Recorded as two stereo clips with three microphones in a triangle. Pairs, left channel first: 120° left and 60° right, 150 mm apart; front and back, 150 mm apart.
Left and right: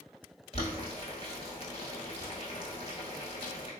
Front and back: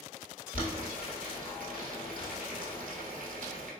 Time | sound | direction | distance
0.5 | boiling | 165° left | 1.0 m